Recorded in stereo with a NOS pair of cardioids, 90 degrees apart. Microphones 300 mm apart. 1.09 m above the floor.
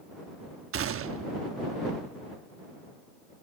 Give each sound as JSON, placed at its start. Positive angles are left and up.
{"t": 0.7, "sound": "a gunshot", "azimuth_deg": -50}